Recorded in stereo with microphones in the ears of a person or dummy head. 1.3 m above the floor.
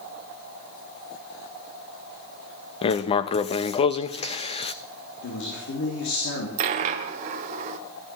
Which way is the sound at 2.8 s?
35° left (ahead or behind).